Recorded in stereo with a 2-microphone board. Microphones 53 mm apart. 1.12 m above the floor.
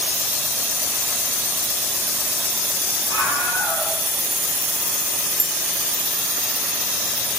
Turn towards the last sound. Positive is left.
turn(degrees=-70)  # may be behind; listen again after turning